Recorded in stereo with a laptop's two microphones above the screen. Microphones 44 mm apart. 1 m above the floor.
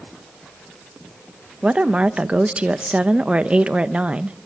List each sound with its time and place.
1.6 s a woman speaking: 25° right (ahead or behind), 0.7 m